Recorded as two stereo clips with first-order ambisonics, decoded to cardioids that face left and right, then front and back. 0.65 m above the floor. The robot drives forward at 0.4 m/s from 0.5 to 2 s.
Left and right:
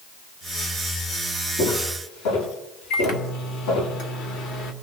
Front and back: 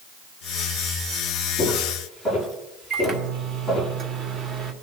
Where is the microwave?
130° left, 1.5 m.